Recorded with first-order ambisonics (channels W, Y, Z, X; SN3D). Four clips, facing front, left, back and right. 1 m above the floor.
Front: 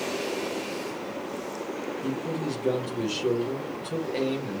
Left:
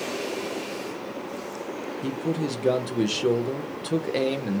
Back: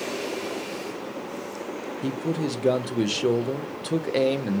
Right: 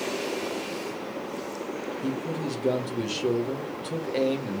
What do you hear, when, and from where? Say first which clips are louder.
2.0 s a man speaking: left 4 dB, back 5 dB; 150° left, 0.7 m